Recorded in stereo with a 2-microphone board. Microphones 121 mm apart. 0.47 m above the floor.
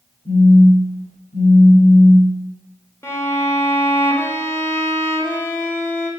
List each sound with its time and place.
0.2 s a phone buzzing: 60° left (ahead or behind), 1.8 m
3.0 s a violin: 20° left (ahead or behind), 0.7 m